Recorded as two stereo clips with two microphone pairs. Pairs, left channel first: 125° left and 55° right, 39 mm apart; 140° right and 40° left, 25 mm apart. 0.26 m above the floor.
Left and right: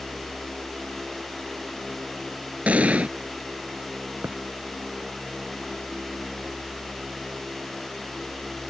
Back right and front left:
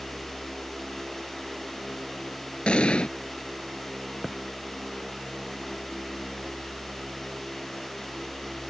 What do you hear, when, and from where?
2.7 s an explosion: 105° right
4.2 s a thud: 60° right